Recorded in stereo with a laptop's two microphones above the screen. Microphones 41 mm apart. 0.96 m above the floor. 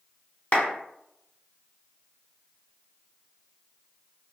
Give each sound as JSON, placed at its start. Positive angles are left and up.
{"t": 0.5, "sound": "a clap", "side_deg": 45, "distance_m": 0.9}